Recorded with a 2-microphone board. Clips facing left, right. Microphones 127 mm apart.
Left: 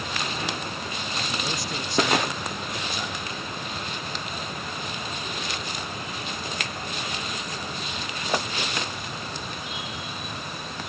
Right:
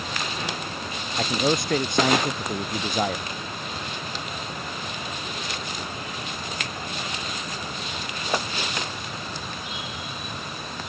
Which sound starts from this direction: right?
A man speaking, at 1.2 s.